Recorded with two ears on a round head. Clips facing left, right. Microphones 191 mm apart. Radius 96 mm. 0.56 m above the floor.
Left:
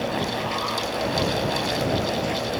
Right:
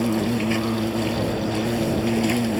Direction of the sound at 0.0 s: 70° right (ahead or behind).